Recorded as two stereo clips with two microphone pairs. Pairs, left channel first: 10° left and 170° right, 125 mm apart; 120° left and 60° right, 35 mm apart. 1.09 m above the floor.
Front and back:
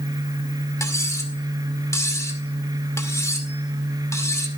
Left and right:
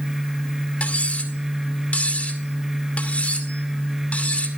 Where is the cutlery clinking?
70° left, 2 m.